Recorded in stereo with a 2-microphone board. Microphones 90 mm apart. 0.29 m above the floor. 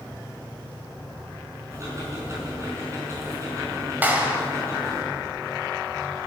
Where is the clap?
20° right (ahead or behind), 1.5 m.